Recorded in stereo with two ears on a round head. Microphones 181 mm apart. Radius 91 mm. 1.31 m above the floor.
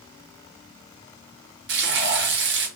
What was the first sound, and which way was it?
Frying, 55° right (ahead or behind).